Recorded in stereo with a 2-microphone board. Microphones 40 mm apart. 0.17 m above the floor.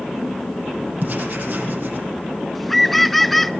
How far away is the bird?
About 0.5 m.